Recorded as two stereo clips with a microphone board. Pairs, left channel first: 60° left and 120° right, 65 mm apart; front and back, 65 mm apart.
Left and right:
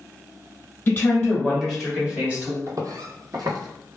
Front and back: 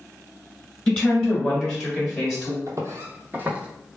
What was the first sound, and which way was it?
A woman speaking, 75° left.